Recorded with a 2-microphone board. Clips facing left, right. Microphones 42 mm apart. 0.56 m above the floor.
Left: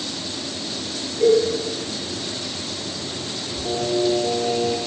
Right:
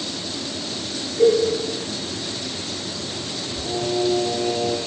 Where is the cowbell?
65° right (ahead or behind), 0.9 m.